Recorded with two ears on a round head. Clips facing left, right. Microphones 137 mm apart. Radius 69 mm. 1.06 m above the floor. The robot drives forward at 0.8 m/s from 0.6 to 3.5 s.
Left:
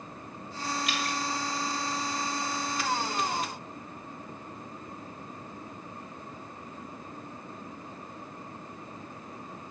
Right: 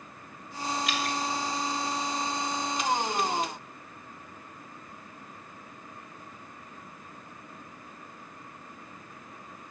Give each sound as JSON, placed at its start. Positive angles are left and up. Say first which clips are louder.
{"t": 0.9, "sound": "dripping", "louder": "right 2 dB", "side_deg": -75, "distance_m": 4.0}